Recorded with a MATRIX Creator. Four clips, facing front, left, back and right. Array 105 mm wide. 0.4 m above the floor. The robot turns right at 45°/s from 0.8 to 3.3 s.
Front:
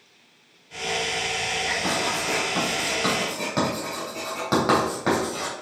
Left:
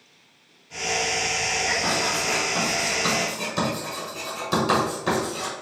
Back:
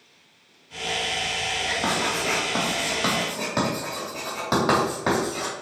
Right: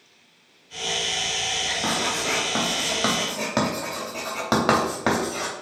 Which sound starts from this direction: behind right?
Writing, at 1.8 s.